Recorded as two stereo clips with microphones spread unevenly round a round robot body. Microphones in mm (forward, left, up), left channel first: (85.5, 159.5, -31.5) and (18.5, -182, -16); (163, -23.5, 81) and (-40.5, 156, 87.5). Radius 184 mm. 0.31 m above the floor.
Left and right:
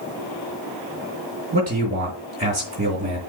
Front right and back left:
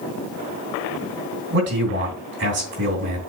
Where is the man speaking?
170° right, 3 m.